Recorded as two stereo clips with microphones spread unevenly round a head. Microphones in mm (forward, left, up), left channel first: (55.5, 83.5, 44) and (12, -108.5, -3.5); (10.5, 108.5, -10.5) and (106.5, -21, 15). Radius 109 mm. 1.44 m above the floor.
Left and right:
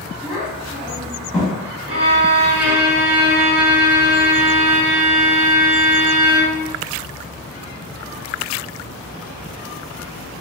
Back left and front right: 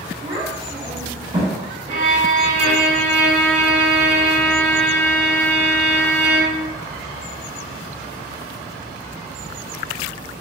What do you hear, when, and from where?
0.2 s a child speaking: 5° right, 1.3 m
1.9 s a violin: 60° right, 1.1 m